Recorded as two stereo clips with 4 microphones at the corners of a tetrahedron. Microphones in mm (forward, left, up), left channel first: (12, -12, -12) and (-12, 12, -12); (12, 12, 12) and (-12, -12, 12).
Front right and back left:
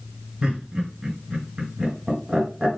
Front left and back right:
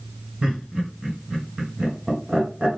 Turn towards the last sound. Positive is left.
turn(degrees=175)